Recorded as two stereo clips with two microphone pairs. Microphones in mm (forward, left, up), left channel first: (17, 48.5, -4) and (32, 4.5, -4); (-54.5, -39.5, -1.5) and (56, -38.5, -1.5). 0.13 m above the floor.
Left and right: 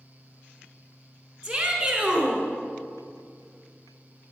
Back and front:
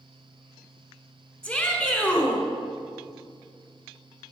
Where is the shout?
115° right, 1.1 m.